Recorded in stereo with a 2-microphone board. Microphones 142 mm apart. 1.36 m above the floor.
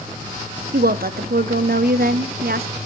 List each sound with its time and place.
0.7 s a woman speaking: 85° right, 0.6 m